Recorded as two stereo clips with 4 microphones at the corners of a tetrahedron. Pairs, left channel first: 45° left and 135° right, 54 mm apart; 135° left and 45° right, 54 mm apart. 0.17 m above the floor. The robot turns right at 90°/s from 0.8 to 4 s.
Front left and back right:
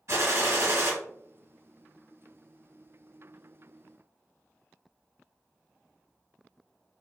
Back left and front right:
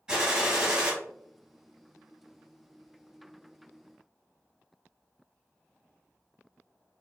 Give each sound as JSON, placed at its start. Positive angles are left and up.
{"t": 0.1, "sound": "a gunshot", "azimuth_deg": -115, "distance_m": 1.1}